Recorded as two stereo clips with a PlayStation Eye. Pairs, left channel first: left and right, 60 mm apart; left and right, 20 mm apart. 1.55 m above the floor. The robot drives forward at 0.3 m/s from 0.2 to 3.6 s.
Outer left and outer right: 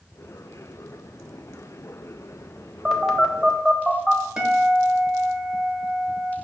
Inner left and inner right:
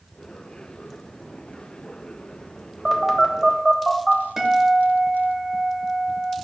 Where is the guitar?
15° right (ahead or behind), 0.8 m.